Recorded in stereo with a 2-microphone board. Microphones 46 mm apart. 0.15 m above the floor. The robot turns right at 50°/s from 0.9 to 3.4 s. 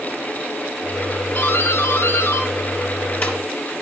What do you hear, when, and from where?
1.4 s a doorbell: 35° left (ahead or behind), 3.5 m; by 3.7 s 25° left (ahead or behind), 3.5 m